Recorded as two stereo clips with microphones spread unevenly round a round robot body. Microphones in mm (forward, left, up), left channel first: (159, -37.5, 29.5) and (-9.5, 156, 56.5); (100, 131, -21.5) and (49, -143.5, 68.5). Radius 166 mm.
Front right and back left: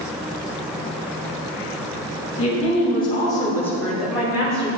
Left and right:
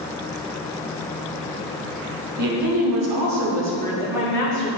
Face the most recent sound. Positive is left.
turn(degrees=55)